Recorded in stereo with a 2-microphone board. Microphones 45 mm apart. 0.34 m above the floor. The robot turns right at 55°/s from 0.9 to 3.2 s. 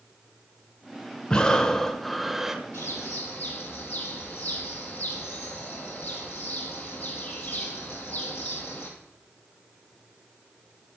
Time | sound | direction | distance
1.3 | breathing | 15° left (ahead or behind) | 0.7 m
2.7 | a bird | 65° left (ahead or behind) | 2 m